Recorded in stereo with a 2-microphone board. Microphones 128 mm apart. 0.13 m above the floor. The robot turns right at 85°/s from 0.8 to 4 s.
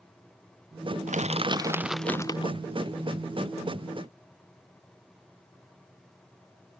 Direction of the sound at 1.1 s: 75° right.